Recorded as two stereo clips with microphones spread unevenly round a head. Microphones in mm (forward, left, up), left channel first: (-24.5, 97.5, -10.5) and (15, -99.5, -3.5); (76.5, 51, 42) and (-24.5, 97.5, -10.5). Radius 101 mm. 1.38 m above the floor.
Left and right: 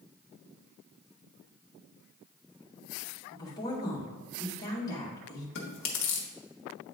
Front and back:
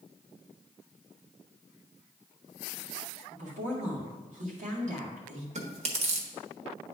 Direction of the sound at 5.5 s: 125° left.